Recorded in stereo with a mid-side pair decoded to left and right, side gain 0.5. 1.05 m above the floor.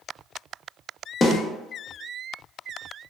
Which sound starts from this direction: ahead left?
A snare drum, at 1.2 s.